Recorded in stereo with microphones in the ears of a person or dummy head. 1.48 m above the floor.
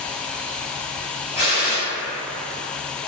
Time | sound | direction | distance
1.4 | a gunshot | 55° right (ahead or behind) | 1.3 m